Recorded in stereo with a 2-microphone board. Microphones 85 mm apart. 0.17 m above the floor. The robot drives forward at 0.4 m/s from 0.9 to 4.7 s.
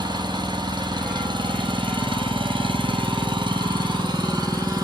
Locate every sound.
0.0 s an engine running: 55° right (ahead or behind), 1.2 m; by 4.8 s 45° right (ahead or behind), 1.4 m